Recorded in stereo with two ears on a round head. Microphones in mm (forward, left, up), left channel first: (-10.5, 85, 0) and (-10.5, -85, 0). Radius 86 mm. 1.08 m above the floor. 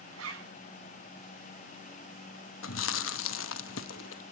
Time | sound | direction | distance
0.1 | a zipper | 80° right | 6.5 m
2.6 | chewing | 80° left | 1.1 m